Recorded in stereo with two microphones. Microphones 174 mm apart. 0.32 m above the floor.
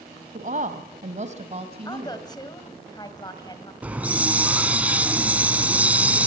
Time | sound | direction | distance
0.3 | a woman speaking | 50° right (ahead or behind) | 1.9 m
1.9 | a woman speaking | 25° left (ahead or behind) | 2 m
3.8 | a hiss | 10° right (ahead or behind) | 1.2 m